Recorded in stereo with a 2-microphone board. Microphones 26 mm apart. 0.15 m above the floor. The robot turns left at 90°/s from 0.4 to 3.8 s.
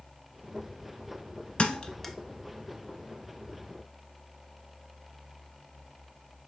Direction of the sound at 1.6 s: 40° left (ahead or behind).